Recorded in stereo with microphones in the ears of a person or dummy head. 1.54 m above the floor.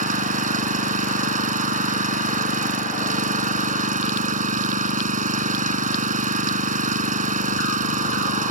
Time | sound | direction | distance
0.0 | an engine running | 45° right (ahead or behind) | ?